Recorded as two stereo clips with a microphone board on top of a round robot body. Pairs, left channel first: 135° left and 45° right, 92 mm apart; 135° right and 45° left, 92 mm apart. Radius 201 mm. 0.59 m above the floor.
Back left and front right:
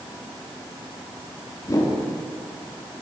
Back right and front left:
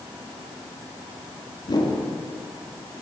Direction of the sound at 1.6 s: 175° right.